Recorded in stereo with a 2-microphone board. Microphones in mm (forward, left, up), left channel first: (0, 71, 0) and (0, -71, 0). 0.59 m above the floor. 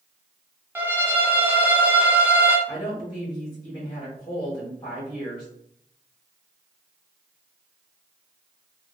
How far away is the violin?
About 0.5 m.